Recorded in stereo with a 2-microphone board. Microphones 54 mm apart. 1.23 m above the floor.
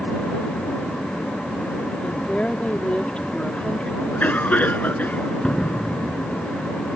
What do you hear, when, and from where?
2.0 s a woman speaking: 20° left (ahead or behind)
4.0 s a cough: 30° left (ahead or behind)
5.4 s a door slam: 15° left (ahead or behind)